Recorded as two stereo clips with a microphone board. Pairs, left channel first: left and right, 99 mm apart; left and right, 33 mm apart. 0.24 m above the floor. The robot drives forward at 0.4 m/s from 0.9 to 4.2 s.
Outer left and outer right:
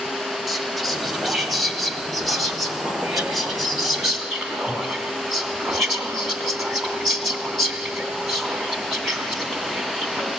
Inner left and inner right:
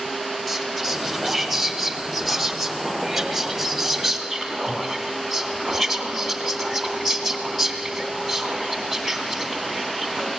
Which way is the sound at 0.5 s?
Centre (ahead or behind).